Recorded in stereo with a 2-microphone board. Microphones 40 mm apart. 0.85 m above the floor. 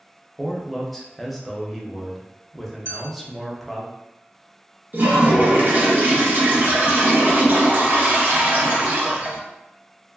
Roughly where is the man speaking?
Centre.